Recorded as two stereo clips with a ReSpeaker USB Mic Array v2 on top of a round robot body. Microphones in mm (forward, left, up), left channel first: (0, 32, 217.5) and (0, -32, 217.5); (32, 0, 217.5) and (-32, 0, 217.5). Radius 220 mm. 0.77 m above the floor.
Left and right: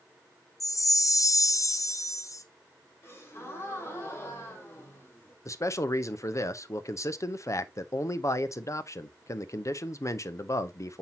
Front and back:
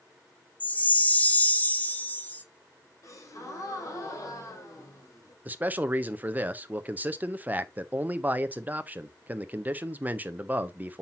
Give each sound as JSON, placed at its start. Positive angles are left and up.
{"t": 0.6, "sound": "a chime", "azimuth_deg": 65, "distance_m": 1.0}
{"t": 3.0, "sound": "a gasp", "azimuth_deg": 40, "distance_m": 2.5}
{"t": 5.5, "sound": "a man speaking", "azimuth_deg": 120, "distance_m": 0.9}